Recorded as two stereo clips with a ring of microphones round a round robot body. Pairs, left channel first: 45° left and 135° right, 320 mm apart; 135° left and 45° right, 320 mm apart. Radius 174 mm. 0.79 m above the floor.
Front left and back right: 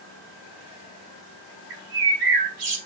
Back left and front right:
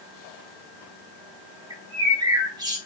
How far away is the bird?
About 4 m.